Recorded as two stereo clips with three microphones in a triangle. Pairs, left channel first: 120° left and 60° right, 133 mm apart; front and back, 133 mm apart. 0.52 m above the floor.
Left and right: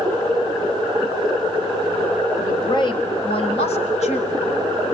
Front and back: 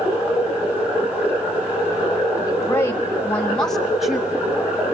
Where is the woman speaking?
60° left, 2.5 m; by 4.5 s 95° left, 3.5 m.